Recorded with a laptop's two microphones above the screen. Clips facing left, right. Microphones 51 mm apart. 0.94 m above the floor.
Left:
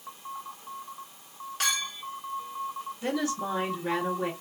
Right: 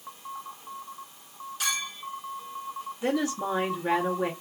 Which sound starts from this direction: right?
A woman speaking, at 3.0 s.